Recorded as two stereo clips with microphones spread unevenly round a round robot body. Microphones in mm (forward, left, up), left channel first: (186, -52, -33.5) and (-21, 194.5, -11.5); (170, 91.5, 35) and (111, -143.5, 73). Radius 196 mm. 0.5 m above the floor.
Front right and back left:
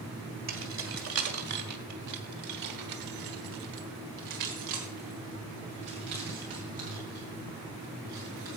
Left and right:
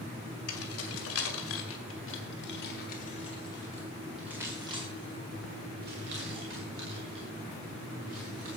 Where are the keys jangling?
80° left, 2.5 m; by 8.6 s 150° right, 3.5 m.